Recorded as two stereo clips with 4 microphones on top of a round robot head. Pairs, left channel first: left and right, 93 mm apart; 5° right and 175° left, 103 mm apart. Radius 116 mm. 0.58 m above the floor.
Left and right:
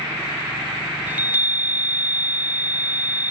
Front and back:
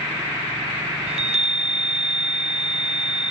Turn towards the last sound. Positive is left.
turn(degrees=-160)